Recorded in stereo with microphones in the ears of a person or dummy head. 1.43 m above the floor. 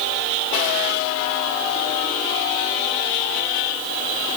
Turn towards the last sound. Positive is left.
No sound to turn to.